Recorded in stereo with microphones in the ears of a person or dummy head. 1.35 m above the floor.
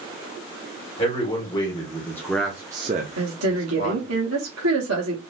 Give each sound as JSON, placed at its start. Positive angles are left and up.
{"t": 1.0, "sound": "a man speaking", "side_deg": 35, "distance_m": 1.5}
{"t": 3.2, "sound": "a woman speaking", "side_deg": -75, "distance_m": 0.8}